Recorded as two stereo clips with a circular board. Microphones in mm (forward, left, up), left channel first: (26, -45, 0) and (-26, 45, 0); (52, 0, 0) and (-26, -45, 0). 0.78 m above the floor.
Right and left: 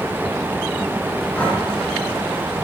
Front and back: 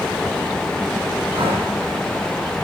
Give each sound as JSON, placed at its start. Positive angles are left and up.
{"t": 1.3, "sound": "breathing", "azimuth_deg": -140, "distance_m": 4.5}